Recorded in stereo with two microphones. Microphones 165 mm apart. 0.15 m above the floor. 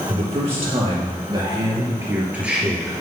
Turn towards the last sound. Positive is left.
turn(degrees=5)  # may be behind; listen again after turning